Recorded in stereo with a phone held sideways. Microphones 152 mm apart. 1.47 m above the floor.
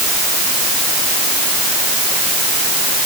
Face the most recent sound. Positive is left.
No sound to turn to.